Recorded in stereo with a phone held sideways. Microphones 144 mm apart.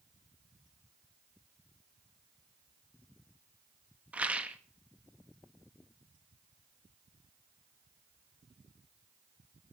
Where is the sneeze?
I don't hear a sneeze.